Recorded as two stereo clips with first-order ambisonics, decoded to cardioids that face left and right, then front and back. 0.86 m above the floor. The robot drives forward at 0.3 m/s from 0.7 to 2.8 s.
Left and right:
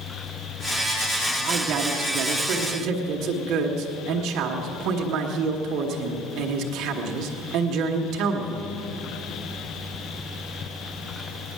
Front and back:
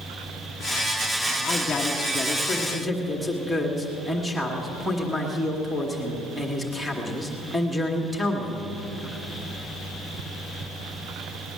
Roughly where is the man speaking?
Ahead right.